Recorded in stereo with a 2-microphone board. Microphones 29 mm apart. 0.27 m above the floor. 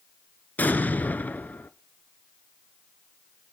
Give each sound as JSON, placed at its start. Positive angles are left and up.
{"t": 0.6, "sound": "an explosion", "side_deg": 85, "distance_m": 0.8}